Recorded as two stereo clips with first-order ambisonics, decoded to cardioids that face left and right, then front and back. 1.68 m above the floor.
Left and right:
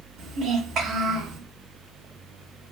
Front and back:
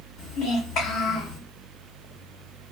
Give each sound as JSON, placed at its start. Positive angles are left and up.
{"t": 0.2, "sound": "a child speaking", "azimuth_deg": -40, "distance_m": 1.9}